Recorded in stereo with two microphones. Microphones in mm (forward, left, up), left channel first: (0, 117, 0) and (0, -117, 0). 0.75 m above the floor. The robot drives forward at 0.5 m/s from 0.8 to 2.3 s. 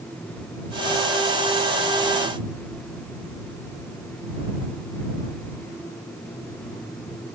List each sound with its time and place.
Only background noise.